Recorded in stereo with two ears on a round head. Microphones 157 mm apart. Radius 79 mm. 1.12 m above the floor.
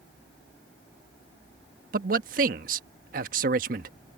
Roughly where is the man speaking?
Right.